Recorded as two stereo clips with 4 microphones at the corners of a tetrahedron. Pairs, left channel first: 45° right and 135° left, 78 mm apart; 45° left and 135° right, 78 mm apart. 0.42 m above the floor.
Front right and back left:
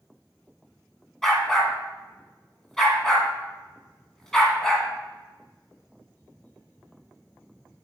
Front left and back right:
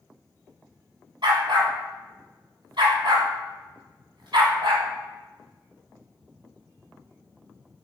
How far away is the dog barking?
About 1.6 m.